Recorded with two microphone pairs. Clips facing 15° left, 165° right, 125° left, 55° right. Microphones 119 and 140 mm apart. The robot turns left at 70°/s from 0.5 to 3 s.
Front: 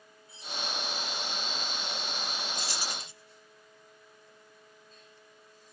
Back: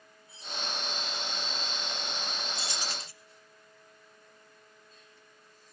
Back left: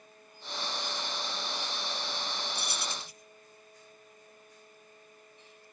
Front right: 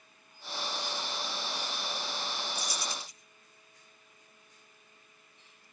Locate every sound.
2.5 s keys jangling: 115° left, 2.0 m; by 3.1 s 85° left, 2.0 m